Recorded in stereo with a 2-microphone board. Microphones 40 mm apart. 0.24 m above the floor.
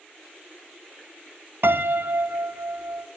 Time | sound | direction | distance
1.6 | a piano | 65° right (ahead or behind) | 0.7 m